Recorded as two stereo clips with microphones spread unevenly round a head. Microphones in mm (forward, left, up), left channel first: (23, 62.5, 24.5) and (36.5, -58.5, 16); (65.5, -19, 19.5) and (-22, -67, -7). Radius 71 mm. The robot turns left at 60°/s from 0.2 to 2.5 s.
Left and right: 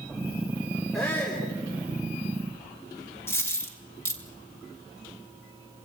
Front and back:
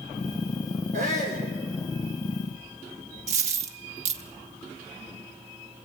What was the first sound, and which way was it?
A shout, 175° right.